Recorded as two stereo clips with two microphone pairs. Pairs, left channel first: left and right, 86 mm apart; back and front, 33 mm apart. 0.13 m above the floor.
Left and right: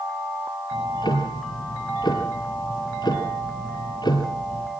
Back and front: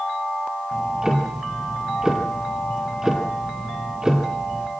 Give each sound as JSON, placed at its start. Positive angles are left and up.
{"t": 0.7, "sound": "ticking", "azimuth_deg": 70, "distance_m": 3.0}